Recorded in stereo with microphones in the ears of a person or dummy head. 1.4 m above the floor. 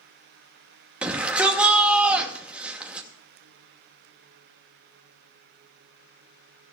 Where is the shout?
5° right (ahead or behind), 2.5 m.